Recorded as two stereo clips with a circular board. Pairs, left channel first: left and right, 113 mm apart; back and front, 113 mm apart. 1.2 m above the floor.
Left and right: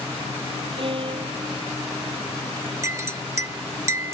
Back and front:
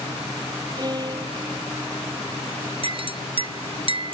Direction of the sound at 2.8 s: 30° right.